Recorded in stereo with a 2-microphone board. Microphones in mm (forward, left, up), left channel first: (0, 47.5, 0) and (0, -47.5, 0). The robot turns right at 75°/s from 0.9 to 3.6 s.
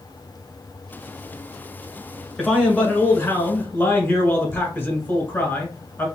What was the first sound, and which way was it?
A man speaking, 5° left (ahead or behind).